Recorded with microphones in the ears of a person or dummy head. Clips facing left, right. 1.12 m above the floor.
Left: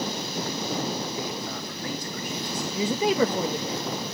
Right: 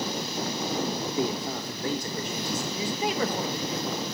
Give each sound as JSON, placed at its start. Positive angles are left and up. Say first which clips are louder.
{"t": 1.2, "sound": "a man speaking", "louder": "right 4 dB", "side_deg": -20, "distance_m": 2.5}
{"t": 2.7, "sound": "a woman speaking", "louder": "left 8 dB", "side_deg": 75, "distance_m": 1.1}